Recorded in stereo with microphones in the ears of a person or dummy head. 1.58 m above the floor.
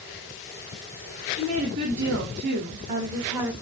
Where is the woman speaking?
75° right (ahead or behind), 1.8 m; by 3.5 s 10° right (ahead or behind), 0.9 m.